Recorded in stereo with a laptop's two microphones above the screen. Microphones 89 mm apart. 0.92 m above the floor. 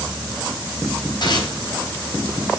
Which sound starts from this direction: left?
Tearing paper, at 1.2 s.